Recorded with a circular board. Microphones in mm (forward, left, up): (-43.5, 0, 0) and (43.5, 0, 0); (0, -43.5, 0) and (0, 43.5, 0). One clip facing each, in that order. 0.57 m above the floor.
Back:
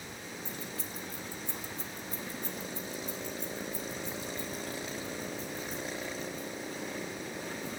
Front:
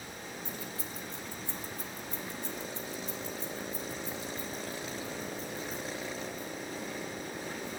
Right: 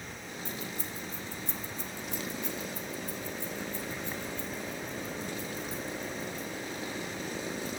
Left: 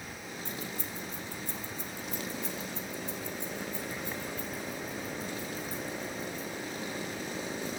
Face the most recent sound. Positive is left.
turn(degrees=-175)